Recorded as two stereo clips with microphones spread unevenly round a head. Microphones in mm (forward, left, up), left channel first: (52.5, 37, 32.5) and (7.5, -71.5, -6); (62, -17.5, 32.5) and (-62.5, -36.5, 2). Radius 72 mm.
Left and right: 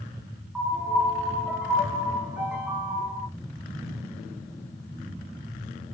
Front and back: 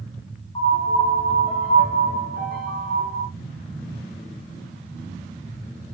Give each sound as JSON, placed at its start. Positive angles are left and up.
{"t": 0.6, "sound": "a piano", "azimuth_deg": -30, "distance_m": 1.5}